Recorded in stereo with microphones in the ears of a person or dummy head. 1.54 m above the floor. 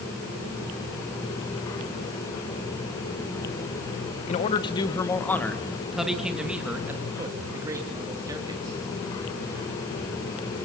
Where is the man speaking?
35° left (ahead or behind), 1.1 m; by 8.8 s 25° right (ahead or behind), 3 m.